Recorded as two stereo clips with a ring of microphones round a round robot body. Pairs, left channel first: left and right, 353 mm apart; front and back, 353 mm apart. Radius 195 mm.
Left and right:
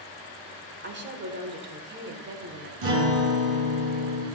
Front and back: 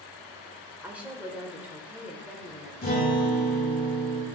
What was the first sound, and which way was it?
A woman speaking, 100° right.